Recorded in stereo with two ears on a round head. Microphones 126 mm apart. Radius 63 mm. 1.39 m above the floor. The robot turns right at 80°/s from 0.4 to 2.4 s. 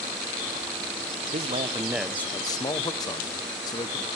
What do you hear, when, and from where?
1.3 s a man speaking: 55° right, 0.7 m; by 4.1 s 30° left, 0.7 m